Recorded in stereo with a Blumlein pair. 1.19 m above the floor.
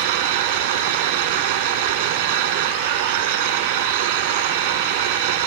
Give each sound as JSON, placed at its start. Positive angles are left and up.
{"t": 0.0, "sound": "a machine running", "azimuth_deg": -50}